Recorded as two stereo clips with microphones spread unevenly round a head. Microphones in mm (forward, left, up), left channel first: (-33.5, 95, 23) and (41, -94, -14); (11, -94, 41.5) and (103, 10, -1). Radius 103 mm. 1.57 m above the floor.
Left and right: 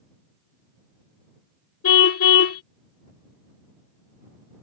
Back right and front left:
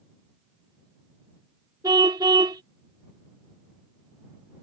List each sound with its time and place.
1.8 s a car horn: 125° left